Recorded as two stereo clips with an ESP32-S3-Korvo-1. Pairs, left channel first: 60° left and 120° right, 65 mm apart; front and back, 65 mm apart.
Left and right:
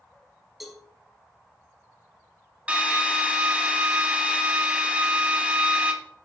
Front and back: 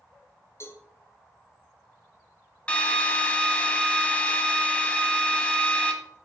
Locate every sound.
0.6 s a cowbell: 30° right, 1.4 m
2.7 s a drill: 60° right, 1.1 m